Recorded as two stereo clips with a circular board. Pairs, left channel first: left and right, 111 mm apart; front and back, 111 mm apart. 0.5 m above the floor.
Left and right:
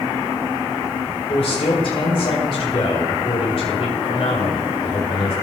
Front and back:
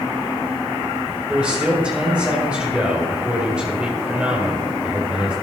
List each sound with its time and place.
1.3 s a man speaking: 100° left, 2.5 m